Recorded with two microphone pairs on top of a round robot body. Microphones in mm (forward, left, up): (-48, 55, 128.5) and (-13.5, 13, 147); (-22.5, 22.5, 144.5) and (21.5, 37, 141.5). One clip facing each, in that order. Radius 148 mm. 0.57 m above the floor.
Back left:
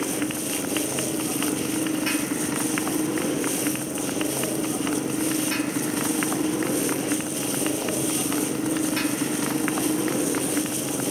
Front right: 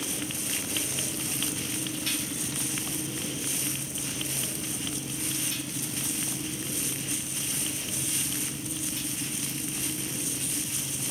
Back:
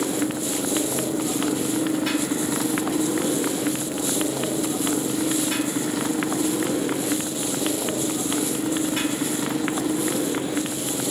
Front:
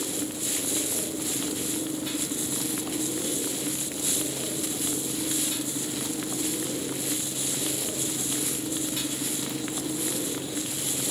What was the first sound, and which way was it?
A motorcycle, 175° right.